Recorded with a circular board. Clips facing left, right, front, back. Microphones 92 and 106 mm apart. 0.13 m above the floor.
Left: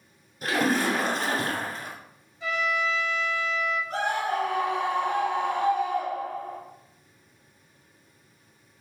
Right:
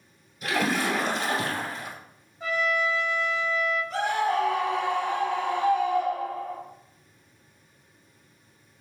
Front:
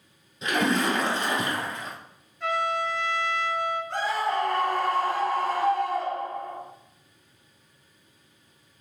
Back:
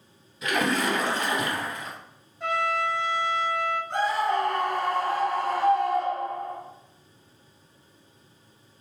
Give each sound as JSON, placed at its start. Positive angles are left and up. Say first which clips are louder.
{"t": 0.4, "sound": "a splash", "louder": "left 2 dB, front 1 dB", "azimuth_deg": 55, "distance_m": 2.0}
{"t": 2.4, "sound": "a trumpet", "louder": "right 1 dB, back 1 dB", "azimuth_deg": -120, "distance_m": 1.2}
{"t": 3.9, "sound": "a scream", "louder": "right 3 dB, back 3 dB", "azimuth_deg": 85, "distance_m": 2.0}